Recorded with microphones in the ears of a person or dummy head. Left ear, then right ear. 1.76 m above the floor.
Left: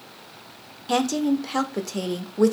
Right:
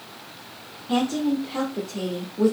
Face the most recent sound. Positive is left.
turn(degrees=75)  # may be behind; listen again after turning